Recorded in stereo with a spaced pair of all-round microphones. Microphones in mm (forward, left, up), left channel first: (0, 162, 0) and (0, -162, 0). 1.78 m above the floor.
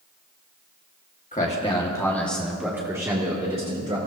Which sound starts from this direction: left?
A man speaking, at 1.3 s.